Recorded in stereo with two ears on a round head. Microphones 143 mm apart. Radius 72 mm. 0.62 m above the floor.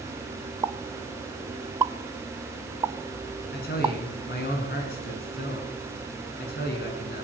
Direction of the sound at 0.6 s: 20° right (ahead or behind).